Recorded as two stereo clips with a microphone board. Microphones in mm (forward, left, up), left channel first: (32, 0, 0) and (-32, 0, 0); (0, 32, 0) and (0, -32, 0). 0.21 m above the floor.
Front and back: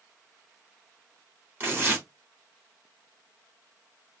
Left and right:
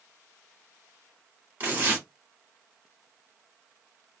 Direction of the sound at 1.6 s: 140° right.